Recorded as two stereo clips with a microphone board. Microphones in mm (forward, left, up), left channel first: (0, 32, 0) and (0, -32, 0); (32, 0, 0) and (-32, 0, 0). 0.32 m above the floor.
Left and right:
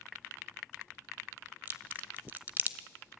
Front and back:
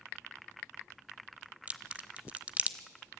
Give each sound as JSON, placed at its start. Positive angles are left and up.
{"t": 1.7, "sound": "a crack", "azimuth_deg": -125, "distance_m": 0.9}